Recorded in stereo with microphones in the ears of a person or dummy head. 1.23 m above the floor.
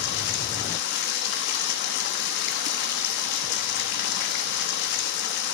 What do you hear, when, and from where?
0.0 s running water: 55° left (ahead or behind), 1.1 m